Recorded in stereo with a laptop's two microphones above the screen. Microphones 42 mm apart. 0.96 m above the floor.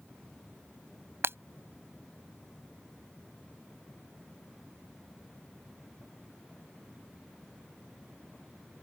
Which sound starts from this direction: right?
Breaking glass, at 1.2 s.